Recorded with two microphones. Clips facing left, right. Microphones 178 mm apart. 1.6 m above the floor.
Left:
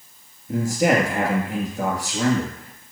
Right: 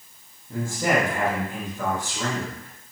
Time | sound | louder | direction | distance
0.5 | a man speaking | left 5 dB | 80° left | 2.5 m